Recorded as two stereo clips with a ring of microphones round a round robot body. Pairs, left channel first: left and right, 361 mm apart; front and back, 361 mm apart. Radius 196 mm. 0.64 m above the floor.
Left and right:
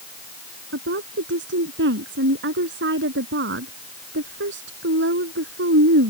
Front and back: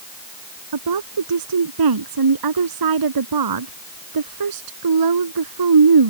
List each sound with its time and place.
0.7 s a woman speaking: 155° right